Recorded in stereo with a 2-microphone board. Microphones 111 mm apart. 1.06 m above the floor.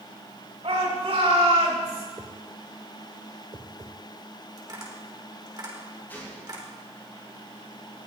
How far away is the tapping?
About 3.5 m.